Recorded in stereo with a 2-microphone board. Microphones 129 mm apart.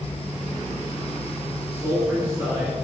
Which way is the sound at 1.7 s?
15° right (ahead or behind).